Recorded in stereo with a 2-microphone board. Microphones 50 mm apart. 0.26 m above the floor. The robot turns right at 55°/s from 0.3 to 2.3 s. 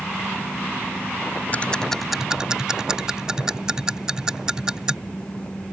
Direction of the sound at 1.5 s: 30° left (ahead or behind).